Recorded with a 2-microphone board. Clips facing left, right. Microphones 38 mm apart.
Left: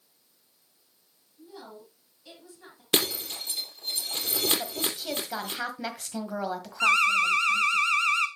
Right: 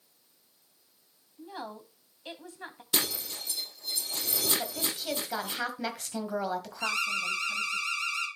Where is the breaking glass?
50° left (ahead or behind), 4 m.